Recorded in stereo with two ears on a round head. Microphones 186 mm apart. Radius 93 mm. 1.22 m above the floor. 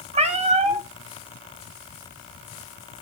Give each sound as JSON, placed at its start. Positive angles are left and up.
{"t": 0.1, "sound": "a cat meowing", "side_deg": -30, "distance_m": 1.3}